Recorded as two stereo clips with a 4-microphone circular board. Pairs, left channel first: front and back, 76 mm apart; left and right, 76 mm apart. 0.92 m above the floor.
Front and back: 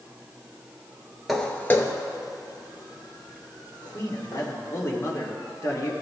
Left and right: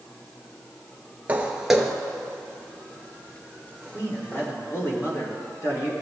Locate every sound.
1.3 s footsteps: 85° right, 0.9 m; by 4.5 s 25° left, 3.5 m
3.9 s a man speaking: 45° left, 2 m